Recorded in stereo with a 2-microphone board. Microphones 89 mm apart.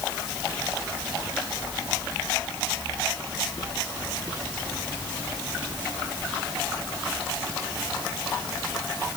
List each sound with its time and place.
Only background noise.